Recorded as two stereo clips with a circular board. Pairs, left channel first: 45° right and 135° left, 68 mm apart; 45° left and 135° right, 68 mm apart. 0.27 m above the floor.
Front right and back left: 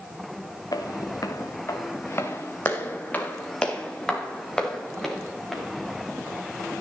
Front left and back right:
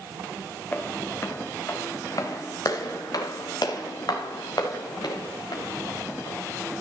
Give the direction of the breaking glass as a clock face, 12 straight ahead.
I don't hear breaking glass.